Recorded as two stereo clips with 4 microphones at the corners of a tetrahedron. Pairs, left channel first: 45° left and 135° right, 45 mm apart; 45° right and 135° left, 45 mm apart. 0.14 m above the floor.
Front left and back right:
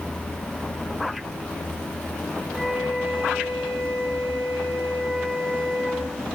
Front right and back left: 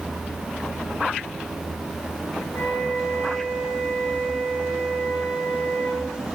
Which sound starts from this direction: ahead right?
A flute, at 2.5 s.